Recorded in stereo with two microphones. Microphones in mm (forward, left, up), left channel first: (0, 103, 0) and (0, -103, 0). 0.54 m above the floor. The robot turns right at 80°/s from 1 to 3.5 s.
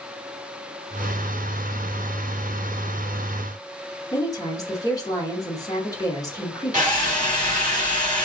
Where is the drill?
40° right (ahead or behind), 2 m.